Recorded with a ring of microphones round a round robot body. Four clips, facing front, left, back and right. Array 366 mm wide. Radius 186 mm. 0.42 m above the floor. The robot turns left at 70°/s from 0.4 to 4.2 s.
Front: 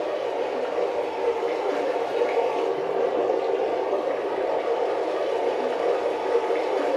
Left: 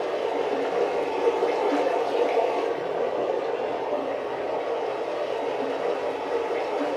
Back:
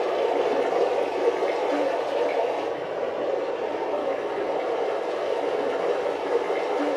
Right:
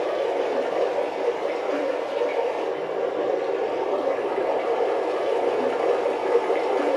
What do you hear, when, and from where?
0.0 s running water: 175° right, 1.0 m; by 7.0 s 80° right, 1.0 m